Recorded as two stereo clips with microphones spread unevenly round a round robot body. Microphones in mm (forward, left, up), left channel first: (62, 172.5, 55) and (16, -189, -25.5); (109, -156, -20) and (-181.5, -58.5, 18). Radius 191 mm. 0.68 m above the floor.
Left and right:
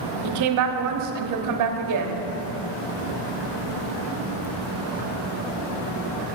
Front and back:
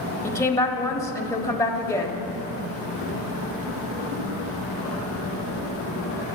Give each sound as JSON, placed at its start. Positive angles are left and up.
{"t": 0.2, "sound": "a woman speaking", "azimuth_deg": -95, "distance_m": 1.0}